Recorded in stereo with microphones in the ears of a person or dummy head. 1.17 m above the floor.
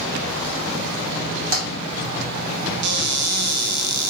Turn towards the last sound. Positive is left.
turn(degrees=-55)  # may be behind; listen again after turning